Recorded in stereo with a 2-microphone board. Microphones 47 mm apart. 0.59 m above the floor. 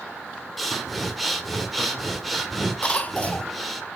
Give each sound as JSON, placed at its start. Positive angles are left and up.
{"t": 0.6, "sound": "breathing", "side_deg": 0, "distance_m": 1.6}
{"t": 2.8, "sound": "a cough", "side_deg": 30, "distance_m": 0.8}